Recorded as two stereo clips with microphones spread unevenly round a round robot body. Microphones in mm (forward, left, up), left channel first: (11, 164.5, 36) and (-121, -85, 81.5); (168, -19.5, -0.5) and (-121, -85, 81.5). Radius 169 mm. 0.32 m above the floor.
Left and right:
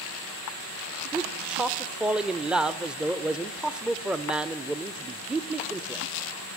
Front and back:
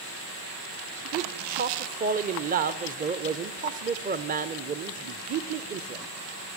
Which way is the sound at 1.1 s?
135° left.